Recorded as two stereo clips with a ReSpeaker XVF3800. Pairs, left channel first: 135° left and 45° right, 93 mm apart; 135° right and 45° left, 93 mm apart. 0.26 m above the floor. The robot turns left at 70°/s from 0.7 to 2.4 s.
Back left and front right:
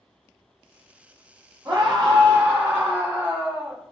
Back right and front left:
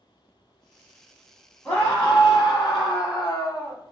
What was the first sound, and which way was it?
A scream, 60° right.